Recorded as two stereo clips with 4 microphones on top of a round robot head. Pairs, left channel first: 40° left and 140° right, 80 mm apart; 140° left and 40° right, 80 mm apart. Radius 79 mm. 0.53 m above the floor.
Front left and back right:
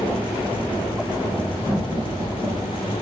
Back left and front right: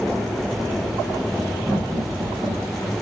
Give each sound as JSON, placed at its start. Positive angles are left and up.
{"t": 1.7, "sound": "laughter", "azimuth_deg": -65, "distance_m": 1.9}